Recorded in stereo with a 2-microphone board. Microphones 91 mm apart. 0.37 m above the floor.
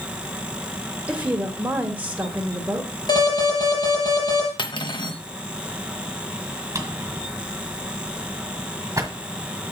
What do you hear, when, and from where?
1.1 s a woman speaking: 20° right (ahead or behind), 1.0 m
3.1 s an alarm: 55° left (ahead or behind), 4 m
4.6 s cutlery clinking: 60° left (ahead or behind), 0.8 m
6.8 s a drawer: 35° right (ahead or behind), 1.6 m